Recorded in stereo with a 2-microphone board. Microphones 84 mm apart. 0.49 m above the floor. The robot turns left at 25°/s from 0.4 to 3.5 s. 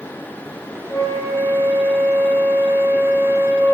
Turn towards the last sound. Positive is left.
turn(degrees=-50)